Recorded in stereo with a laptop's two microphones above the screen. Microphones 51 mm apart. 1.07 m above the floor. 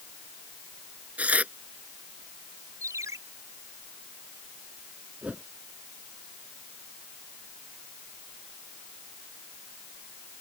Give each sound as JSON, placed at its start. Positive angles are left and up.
{"t": 1.2, "sound": "tearing paper", "side_deg": -30}
{"t": 2.8, "sound": "a ringtone", "side_deg": -85}
{"t": 5.2, "sound": "a whoosh", "side_deg": -25}